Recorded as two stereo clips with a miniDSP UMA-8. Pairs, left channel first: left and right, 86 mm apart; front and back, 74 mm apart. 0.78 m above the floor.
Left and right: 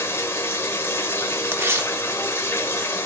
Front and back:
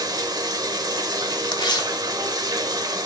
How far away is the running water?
About 1.0 m.